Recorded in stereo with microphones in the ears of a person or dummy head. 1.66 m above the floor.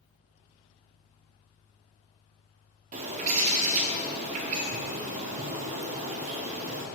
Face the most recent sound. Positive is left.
turn(degrees=-40)  # may be behind; listen again after turning